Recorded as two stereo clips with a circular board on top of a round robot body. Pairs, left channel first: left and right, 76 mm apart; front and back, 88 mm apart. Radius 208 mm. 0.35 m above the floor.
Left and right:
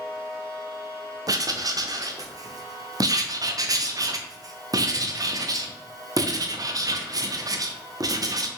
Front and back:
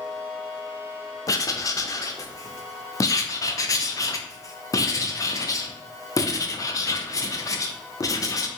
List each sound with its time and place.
1.3 s writing: 50° right, 0.6 m